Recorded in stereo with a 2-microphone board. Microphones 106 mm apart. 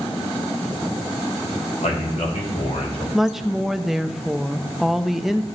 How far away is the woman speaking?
About 0.5 m.